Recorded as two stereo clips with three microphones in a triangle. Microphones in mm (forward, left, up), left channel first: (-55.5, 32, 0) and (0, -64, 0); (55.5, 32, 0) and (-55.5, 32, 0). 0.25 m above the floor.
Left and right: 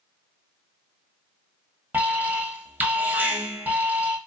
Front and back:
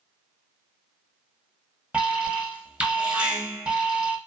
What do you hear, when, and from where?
1.9 s an alarm: 115° right, 0.7 m